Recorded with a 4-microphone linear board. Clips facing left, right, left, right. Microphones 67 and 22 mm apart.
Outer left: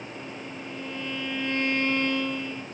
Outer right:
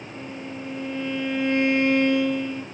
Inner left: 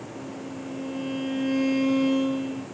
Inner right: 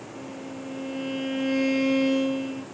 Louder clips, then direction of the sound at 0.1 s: Outer right 3 dB, even; 20° right (ahead or behind).